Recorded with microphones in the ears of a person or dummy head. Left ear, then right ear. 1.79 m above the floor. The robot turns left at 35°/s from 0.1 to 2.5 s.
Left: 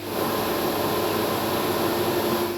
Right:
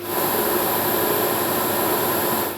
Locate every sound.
Only background noise.